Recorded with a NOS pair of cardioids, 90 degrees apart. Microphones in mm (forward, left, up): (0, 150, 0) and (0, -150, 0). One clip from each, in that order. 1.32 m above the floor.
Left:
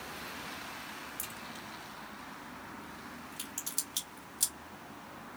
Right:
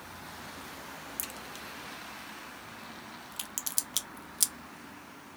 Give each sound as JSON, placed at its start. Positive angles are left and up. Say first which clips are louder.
{"t": 1.2, "sound": "a crack", "louder": "right 2 dB", "azimuth_deg": -45, "distance_m": 0.8}